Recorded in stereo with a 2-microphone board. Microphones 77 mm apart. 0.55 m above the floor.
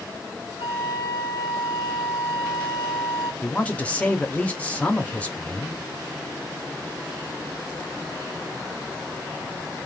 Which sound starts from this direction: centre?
A woman speaking, at 3.4 s.